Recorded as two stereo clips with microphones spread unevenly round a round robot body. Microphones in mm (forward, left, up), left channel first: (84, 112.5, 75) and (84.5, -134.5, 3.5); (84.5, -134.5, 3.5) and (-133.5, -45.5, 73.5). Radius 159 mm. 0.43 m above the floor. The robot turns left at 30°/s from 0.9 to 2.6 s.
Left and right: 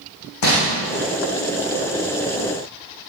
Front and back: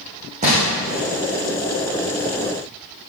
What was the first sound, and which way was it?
Crumpling, 90° left.